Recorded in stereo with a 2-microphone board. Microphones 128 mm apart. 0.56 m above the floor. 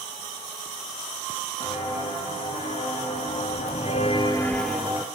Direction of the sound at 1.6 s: 45° left (ahead or behind).